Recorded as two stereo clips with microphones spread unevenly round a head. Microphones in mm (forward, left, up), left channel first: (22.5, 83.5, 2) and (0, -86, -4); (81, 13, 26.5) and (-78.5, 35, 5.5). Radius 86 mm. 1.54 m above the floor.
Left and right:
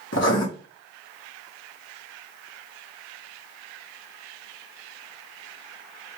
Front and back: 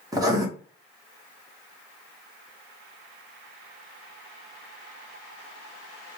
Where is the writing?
105° left, 1.3 m.